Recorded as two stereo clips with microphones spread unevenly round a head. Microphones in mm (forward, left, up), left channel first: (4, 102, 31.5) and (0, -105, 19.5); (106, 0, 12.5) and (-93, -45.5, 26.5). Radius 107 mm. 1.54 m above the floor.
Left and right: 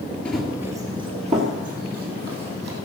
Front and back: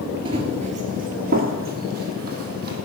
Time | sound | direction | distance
0.2 | running footsteps | 165° left | 1.7 m